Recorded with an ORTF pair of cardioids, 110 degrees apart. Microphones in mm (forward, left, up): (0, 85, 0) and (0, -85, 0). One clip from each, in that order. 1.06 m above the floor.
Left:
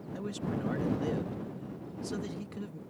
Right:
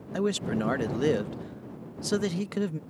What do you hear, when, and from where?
0.1 s a man speaking: 60° right